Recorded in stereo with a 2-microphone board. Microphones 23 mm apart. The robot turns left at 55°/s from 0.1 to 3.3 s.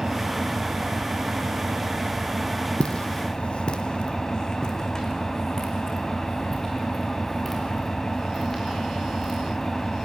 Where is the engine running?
30° right, 2.5 m; by 10.1 s 155° left, 2.5 m.